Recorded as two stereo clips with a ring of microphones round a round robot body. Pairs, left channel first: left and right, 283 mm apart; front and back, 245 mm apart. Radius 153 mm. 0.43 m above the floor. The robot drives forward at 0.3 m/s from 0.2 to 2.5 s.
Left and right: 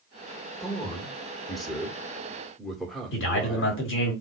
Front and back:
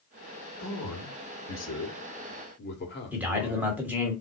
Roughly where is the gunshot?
I don't hear a gunshot.